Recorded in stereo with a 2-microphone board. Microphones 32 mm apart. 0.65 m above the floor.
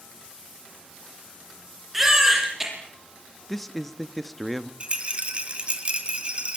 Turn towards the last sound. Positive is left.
turn(degrees=-35)  # may be behind; listen again after turning